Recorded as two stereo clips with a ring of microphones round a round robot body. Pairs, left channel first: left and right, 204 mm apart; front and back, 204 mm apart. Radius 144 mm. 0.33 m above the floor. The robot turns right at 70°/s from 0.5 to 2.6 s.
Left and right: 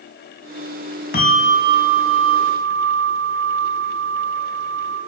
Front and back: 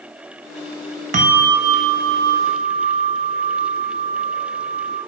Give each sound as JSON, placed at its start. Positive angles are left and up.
{"t": 1.1, "sound": "a bell", "azimuth_deg": 135, "distance_m": 1.8}